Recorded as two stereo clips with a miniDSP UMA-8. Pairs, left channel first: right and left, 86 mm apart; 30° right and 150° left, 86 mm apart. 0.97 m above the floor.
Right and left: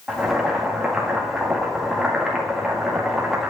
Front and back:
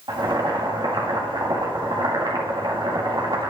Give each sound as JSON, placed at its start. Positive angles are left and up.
{"t": 0.1, "sound": "boiling", "azimuth_deg": 175, "distance_m": 1.9}